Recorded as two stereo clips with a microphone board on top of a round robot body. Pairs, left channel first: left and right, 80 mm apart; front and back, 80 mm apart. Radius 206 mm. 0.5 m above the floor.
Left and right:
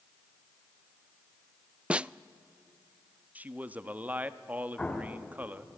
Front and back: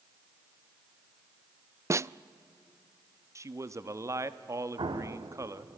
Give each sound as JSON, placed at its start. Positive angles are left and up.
{"t": 1.9, "sound": "a snare drum", "azimuth_deg": -160, "distance_m": 0.5}
{"t": 3.4, "sound": "a man speaking", "azimuth_deg": -150, "distance_m": 1.2}
{"t": 4.8, "sound": "an explosion", "azimuth_deg": 165, "distance_m": 1.1}